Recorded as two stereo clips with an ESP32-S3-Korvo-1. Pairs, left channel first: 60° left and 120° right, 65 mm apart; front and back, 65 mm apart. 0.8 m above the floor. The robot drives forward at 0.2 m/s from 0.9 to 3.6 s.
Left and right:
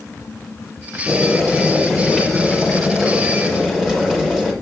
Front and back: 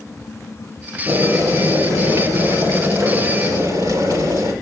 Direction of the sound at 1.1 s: 155° left.